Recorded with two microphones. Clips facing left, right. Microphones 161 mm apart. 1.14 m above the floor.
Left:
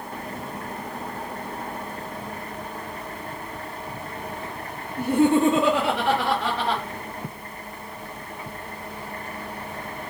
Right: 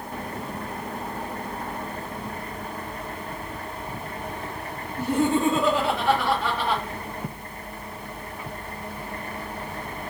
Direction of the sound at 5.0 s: 55° left (ahead or behind).